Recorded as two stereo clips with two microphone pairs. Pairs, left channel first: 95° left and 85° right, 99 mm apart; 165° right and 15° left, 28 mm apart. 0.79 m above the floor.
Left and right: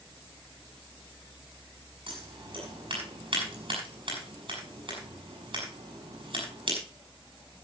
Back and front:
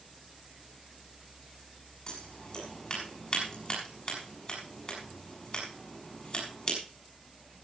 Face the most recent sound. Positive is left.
turn(degrees=-115)